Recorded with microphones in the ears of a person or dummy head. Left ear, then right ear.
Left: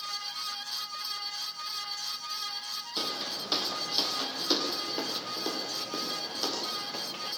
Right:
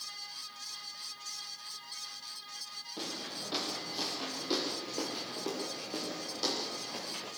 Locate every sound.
3.0 s footsteps: 60° left (ahead or behind), 3.5 m; by 7.3 s 10° left (ahead or behind), 6 m